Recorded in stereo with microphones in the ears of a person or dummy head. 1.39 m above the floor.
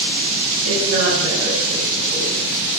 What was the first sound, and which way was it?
A woman speaking, 75° right (ahead or behind).